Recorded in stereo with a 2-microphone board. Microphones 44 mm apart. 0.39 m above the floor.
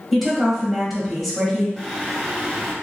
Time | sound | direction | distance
0.1 | a woman speaking | centre (ahead or behind) | 1.7 m
1.8 | singing | centre (ahead or behind) | 1.2 m